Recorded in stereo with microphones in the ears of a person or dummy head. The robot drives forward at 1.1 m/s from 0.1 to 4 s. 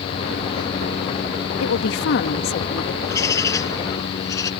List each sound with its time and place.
1.6 s a woman speaking: 70° left (ahead or behind); by 2.9 s 40° left (ahead or behind)
3.0 s a bird: 15° left (ahead or behind)